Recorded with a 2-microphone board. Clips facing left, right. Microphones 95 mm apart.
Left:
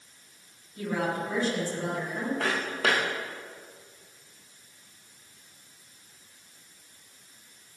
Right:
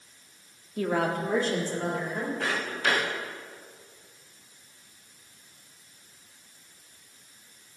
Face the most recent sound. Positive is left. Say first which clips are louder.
# left 2 dB
turn(degrees=75)  # may be behind; listen again after turning